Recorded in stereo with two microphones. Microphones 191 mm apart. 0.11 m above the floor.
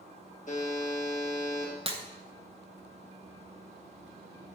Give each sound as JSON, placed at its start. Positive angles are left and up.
{"t": 0.5, "sound": "a buzzer", "side_deg": 40, "distance_m": 3.0}
{"t": 1.9, "sound": "breaking glass", "side_deg": -30, "distance_m": 1.0}